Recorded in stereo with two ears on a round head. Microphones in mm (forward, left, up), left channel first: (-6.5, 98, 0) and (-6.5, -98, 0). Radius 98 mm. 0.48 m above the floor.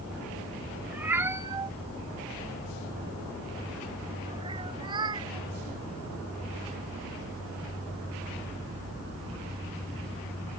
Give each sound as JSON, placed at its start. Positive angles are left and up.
{"t": 0.9, "sound": "a cat meowing", "side_deg": -5}